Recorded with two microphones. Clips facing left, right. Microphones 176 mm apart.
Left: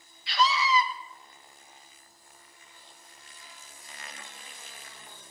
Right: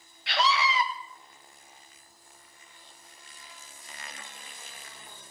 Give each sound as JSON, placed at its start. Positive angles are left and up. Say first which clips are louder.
{"t": 0.3, "sound": "a scream", "louder": "left 1 dB", "side_deg": -70, "distance_m": 1.6}